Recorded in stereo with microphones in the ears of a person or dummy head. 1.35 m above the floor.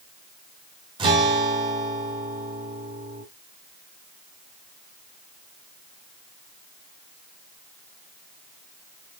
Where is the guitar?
25° right (ahead or behind), 3 m.